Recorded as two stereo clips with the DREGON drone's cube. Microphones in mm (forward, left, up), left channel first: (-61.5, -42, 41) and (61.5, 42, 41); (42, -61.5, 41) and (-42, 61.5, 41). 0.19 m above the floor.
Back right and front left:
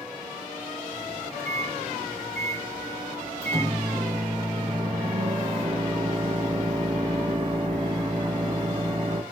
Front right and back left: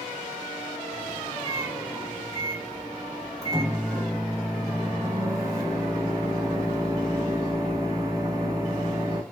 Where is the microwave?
70° left, 1.1 m.